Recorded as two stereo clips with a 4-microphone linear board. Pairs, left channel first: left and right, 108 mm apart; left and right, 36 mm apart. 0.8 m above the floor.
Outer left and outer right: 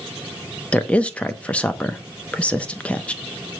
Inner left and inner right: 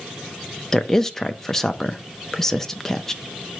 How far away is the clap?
I don't hear a clap.